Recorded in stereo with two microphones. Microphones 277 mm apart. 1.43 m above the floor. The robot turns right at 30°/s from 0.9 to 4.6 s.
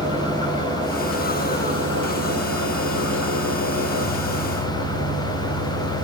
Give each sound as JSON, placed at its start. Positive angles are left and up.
{"t": 0.0, "sound": "an engine running", "azimuth_deg": -155, "distance_m": 2.5}